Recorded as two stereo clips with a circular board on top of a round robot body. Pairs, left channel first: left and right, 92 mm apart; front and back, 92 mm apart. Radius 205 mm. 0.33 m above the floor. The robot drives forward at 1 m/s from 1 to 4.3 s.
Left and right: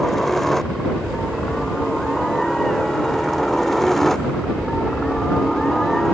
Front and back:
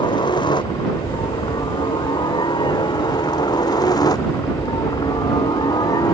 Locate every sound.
0.0 s a helicopter: 5° left